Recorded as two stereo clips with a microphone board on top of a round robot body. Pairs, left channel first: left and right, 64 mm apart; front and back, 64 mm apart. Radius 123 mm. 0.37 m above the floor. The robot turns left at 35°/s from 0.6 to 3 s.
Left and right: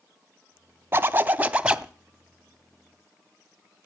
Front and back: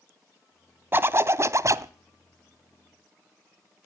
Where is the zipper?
135° right, 1.0 m; by 1.9 s 170° right, 1.0 m.